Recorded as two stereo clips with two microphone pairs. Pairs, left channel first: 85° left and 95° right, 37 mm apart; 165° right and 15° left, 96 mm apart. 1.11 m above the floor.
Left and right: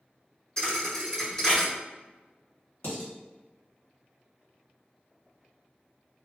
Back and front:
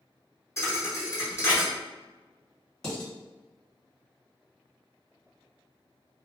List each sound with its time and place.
0.6 s a thud: 145° left, 0.9 m
2.8 s dishes clattering: 110° left, 1.3 m